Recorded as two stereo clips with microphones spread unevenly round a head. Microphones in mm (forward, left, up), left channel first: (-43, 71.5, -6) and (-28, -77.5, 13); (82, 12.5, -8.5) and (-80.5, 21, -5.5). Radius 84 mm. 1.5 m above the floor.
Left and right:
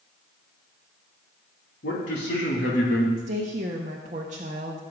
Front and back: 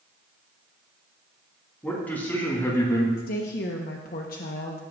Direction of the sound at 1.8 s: 80° left.